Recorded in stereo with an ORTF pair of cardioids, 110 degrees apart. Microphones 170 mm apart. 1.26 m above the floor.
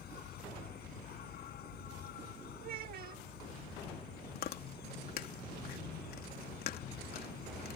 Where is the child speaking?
60° right.